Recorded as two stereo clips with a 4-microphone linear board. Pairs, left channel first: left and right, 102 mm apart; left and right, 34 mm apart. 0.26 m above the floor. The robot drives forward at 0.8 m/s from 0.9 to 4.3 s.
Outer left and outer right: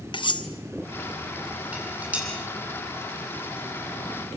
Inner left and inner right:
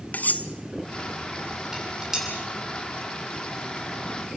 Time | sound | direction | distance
0.1 | cutlery clinking | 50° left (ahead or behind) | 1.3 m
1.7 | dishes clattering | 15° right (ahead or behind) | 6 m